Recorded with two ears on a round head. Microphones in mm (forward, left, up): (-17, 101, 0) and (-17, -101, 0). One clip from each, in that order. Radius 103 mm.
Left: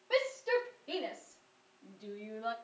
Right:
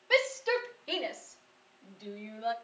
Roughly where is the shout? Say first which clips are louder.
Right 4 dB; right.